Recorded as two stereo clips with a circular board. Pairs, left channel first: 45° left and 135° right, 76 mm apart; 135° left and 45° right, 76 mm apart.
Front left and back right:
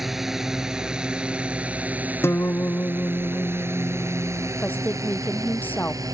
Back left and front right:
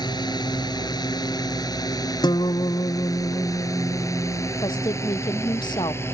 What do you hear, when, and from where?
0.0 s a drone: 140° left; by 6.2 s 170° right
2.2 s a guitar: 105° left
4.6 s a woman speaking: 115° left